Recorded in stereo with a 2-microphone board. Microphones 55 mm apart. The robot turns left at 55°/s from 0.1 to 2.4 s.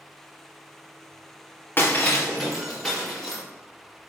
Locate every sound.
1.8 s breaking glass: 40° left (ahead or behind), 4 m; by 3.4 s 5° left (ahead or behind), 4 m